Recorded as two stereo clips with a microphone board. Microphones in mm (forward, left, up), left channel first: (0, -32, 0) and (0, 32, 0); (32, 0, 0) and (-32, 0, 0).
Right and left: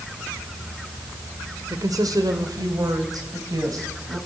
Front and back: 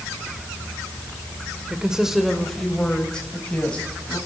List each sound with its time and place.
1.7 s a woman speaking: 105° left, 2.5 m; by 4.2 s 70° left, 5.5 m